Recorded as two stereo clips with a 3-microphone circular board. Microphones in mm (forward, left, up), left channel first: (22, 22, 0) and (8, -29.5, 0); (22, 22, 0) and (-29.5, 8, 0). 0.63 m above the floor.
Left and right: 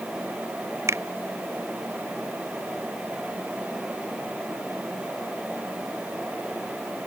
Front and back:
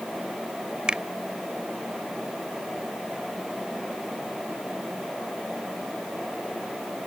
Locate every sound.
0.9 s a finger snap: 95° right